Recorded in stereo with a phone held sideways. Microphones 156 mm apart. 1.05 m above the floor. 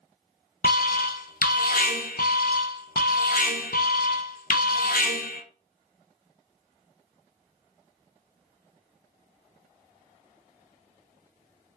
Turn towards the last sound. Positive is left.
turn(degrees=70)  # may be behind; listen again after turning